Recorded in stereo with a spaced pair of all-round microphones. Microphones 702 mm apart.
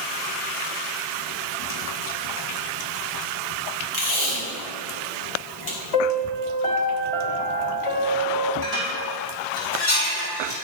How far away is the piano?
About 1.4 m.